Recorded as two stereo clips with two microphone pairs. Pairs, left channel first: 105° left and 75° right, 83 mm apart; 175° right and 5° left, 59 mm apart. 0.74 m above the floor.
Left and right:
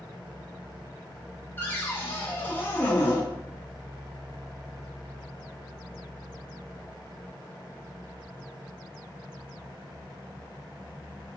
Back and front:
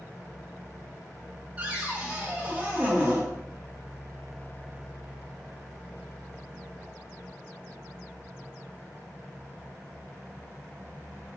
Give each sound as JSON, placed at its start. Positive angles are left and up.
{"t": 1.6, "sound": "a cupboard door", "azimuth_deg": 55, "distance_m": 0.8}